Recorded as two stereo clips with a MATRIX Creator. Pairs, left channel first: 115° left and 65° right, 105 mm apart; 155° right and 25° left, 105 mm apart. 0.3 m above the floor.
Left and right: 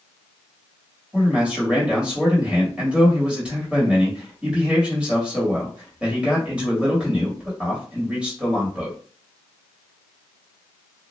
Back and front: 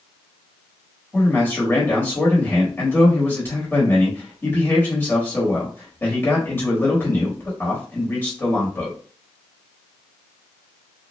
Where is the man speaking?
135° right, 1.1 m.